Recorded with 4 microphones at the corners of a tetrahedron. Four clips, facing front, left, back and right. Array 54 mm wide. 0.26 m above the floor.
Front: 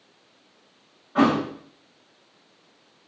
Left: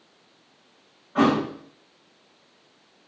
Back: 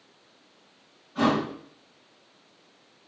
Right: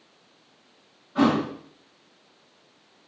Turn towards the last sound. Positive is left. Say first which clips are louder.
# left 1 dB, front 4 dB
turn(degrees=30)